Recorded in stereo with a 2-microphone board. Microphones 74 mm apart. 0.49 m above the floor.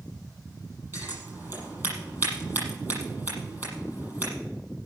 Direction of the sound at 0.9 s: 30° right (ahead or behind).